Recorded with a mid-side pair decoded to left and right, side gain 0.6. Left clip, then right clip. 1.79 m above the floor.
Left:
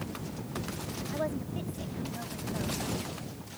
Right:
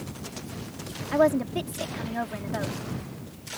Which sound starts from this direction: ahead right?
A woman speaking, at 1.1 s.